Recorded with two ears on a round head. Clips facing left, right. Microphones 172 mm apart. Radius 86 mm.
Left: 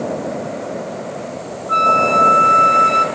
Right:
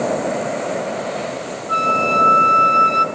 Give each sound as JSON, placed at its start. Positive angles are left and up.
{"t": 1.7, "sound": "a flute", "side_deg": -10, "distance_m": 0.6}